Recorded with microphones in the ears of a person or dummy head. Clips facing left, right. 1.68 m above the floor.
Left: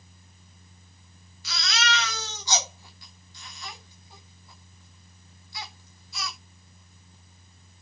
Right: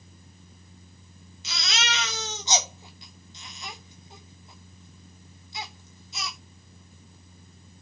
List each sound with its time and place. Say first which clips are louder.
1.4 s a baby crying: left 3 dB; 20° right (ahead or behind), 2.5 m